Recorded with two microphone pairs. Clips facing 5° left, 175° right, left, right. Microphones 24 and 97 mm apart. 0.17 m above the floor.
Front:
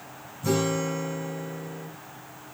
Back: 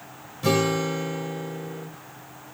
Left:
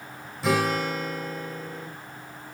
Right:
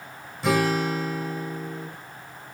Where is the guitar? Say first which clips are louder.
Back 3 dB, right 2 dB; straight behind, 5.5 m.